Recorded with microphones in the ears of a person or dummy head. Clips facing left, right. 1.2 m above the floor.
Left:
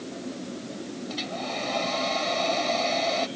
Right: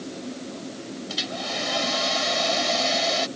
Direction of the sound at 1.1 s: 5° right (ahead or behind).